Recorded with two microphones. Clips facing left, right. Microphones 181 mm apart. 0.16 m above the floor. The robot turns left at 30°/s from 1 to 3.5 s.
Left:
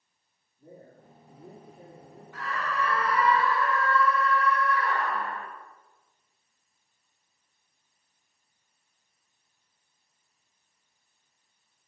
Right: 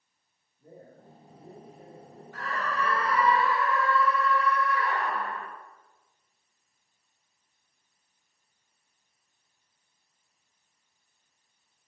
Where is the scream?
120° right, 3 m; by 5.5 s 155° right, 3 m.